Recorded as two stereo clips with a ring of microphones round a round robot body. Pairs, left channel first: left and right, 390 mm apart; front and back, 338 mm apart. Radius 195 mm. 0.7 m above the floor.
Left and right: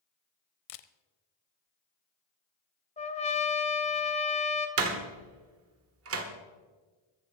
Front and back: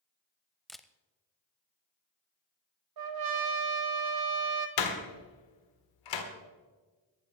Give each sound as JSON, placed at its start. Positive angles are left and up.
{"t": 0.7, "sound": "a camera shutter", "azimuth_deg": 90, "distance_m": 0.6}
{"t": 3.0, "sound": "a trumpet", "azimuth_deg": 165, "distance_m": 1.4}
{"t": 4.8, "sound": "a door slam", "azimuth_deg": -35, "distance_m": 1.6}